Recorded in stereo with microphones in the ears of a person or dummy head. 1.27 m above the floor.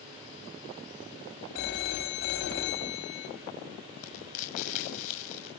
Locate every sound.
1.6 s a phone ringing: 65° left (ahead or behind), 5 m
4.0 s frying: 40° left (ahead or behind), 6.5 m